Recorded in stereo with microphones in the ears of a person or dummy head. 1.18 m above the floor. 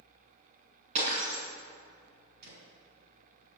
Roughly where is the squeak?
No squeak in this recording.